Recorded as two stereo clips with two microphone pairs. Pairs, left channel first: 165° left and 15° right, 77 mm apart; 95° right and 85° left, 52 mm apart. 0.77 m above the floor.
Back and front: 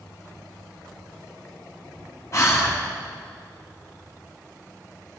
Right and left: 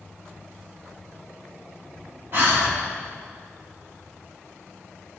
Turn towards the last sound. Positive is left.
turn(degrees=120)